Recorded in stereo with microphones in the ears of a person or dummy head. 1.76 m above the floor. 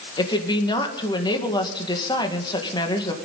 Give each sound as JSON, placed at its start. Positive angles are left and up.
{"t": 0.2, "sound": "a woman speaking", "side_deg": 25, "distance_m": 1.9}